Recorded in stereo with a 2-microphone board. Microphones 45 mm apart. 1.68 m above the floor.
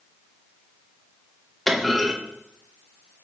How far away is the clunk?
About 2.5 m.